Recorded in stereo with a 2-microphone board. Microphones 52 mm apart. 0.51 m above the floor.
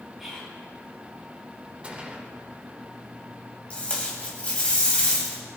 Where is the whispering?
Centre (ahead or behind), 6.5 m.